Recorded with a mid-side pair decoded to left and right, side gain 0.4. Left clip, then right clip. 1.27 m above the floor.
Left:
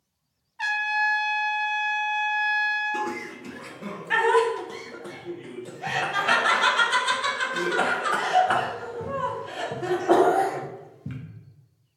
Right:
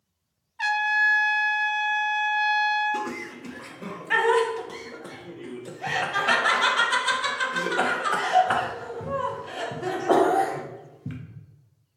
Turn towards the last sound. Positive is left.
turn(degrees=-15)